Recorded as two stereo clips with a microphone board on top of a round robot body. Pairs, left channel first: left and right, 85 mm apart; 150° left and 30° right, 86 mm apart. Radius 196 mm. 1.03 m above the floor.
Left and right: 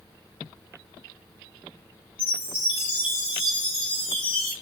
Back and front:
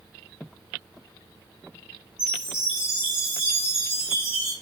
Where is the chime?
50° left, 0.8 m.